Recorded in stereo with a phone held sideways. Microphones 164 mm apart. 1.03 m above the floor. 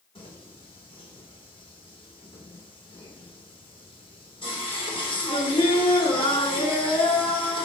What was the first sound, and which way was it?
Singing, 35° left (ahead or behind).